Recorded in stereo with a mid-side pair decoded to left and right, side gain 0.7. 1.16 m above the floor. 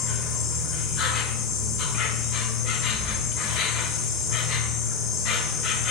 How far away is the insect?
About 1.2 m.